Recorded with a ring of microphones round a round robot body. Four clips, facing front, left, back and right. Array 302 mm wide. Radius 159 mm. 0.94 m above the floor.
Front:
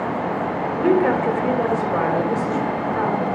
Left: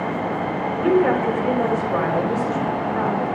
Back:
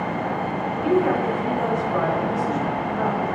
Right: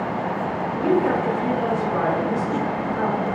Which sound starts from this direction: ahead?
A woman speaking, at 0.8 s.